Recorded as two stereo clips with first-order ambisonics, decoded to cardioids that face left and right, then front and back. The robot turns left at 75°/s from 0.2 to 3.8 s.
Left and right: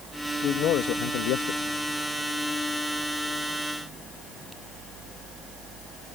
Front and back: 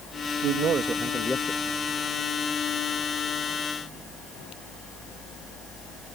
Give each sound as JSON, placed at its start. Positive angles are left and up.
{"t": 0.4, "sound": "a man speaking", "azimuth_deg": 150}